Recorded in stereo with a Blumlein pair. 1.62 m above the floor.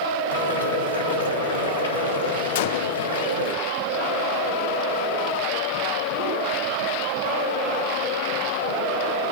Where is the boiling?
65° left, 7 m.